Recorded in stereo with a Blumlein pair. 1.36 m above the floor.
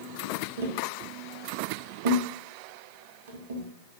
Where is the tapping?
60° right, 0.8 m.